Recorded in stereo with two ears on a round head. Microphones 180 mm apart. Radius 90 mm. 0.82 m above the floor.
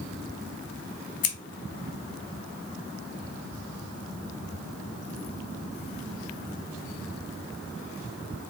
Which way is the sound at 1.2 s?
40° left (ahead or behind).